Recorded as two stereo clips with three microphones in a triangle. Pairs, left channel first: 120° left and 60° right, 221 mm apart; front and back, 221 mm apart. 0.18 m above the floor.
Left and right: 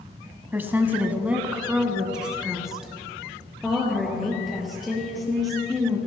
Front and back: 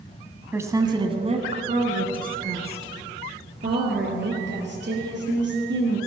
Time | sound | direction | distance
0.5 | a woman speaking | 120° right | 1.2 m